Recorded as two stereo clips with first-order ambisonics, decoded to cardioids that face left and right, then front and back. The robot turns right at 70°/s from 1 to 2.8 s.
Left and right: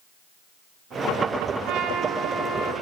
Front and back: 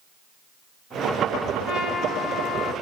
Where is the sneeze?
I don't hear a sneeze.